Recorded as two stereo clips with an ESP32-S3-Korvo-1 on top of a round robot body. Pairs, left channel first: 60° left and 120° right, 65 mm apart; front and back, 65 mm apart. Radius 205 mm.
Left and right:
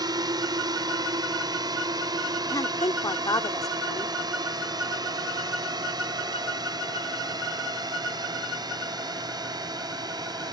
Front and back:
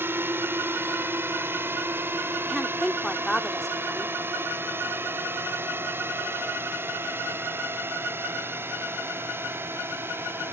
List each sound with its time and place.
0.0 s a drone: 125° right
2.5 s a woman speaking: 85° left